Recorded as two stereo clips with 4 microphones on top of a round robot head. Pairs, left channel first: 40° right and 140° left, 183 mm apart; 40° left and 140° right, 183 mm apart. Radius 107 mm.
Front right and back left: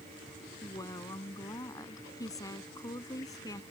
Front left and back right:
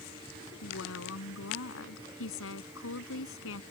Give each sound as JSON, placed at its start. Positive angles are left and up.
{"t": 0.6, "sound": "a woman speaking", "azimuth_deg": 30}